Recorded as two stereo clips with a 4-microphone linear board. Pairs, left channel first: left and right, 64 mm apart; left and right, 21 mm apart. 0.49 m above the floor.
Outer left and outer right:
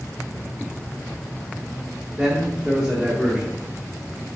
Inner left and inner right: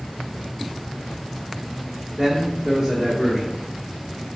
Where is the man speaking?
15° right (ahead or behind), 0.9 m.